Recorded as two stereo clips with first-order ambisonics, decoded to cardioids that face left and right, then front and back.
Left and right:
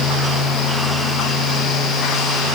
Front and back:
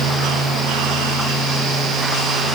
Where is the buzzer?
No buzzer in this recording.